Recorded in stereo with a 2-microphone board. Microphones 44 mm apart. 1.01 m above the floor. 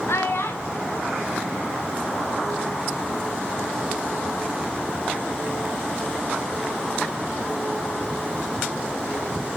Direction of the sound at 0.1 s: 70° left (ahead or behind).